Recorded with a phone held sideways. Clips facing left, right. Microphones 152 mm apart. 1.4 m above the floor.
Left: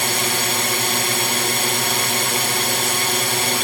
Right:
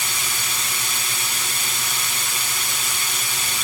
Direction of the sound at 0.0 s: 65° left (ahead or behind).